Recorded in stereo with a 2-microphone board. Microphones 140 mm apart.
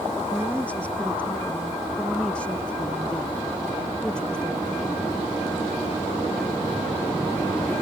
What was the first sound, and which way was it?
A woman speaking, 10° left (ahead or behind).